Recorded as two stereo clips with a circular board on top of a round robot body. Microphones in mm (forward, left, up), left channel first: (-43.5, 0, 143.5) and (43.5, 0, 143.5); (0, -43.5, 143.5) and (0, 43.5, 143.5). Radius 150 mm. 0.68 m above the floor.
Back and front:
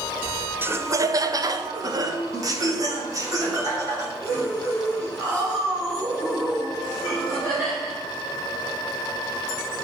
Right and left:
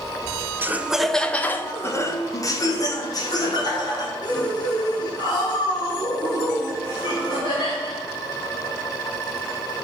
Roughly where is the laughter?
Ahead left.